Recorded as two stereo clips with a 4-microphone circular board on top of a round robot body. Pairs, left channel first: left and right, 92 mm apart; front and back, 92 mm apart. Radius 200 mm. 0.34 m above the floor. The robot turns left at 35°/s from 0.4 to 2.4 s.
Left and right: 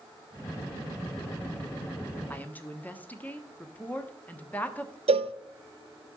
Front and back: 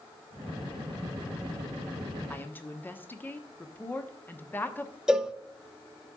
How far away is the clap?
I don't hear a clap.